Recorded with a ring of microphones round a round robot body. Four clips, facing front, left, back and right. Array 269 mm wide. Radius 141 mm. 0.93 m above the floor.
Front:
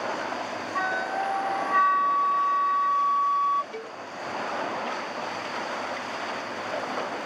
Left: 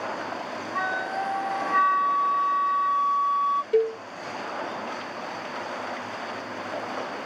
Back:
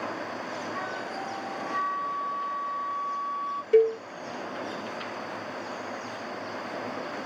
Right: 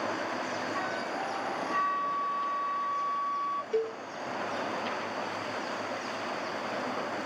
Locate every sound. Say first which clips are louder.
0.8 s a flute: left 5 dB, front 6 dB; 40° left
3.7 s a cowbell: left 8 dB, back 17 dB; 155° left